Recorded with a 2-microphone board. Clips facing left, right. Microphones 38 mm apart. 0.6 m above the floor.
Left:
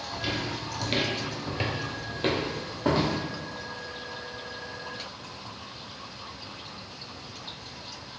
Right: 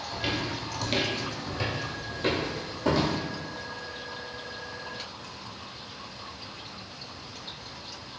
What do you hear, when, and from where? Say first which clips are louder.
0.1 s footsteps: right 1 dB; 20° right (ahead or behind), 0.9 m; by 3.2 s 35° left (ahead or behind), 1.9 m